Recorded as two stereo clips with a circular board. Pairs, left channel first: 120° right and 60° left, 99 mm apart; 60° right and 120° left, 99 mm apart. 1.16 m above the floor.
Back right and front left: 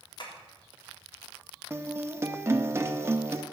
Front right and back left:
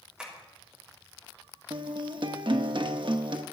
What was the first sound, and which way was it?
Tapping, 160° right.